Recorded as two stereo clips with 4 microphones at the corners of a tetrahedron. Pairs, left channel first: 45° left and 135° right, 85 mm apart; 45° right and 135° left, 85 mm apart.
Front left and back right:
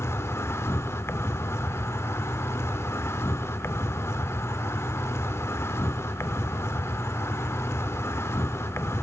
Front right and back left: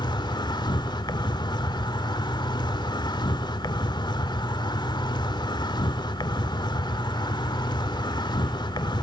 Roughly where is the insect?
Ahead.